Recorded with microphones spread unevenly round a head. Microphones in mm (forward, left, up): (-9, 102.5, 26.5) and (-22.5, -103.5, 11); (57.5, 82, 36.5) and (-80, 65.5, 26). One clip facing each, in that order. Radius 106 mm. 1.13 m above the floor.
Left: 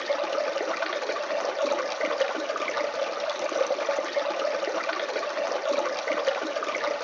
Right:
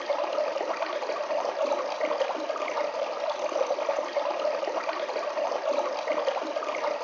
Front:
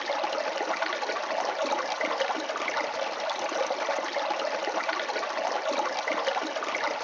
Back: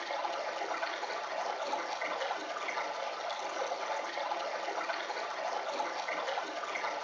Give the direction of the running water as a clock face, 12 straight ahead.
11 o'clock.